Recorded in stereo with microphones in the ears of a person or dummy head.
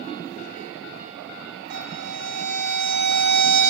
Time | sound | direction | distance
1.7 | a violin | 60° right (ahead or behind) | 1.5 m